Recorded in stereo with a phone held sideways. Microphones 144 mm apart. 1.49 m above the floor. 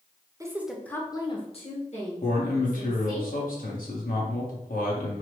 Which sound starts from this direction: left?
A man speaking, at 2.2 s.